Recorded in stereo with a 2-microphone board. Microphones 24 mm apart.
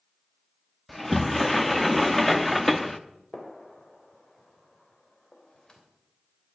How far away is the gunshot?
About 3 m.